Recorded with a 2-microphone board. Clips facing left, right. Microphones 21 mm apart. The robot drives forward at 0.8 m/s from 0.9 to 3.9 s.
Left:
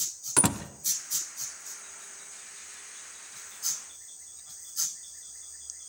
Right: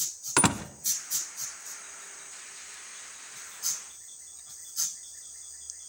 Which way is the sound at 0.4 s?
30° right (ahead or behind).